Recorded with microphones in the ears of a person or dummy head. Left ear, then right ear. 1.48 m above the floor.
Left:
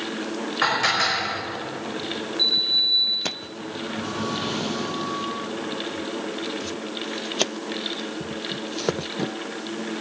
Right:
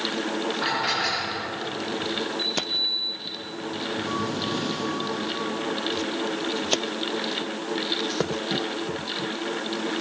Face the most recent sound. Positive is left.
turn(degrees=25)  # may be behind; listen again after turning